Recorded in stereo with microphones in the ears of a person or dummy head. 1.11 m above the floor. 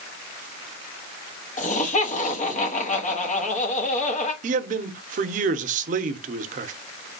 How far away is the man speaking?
About 0.5 m.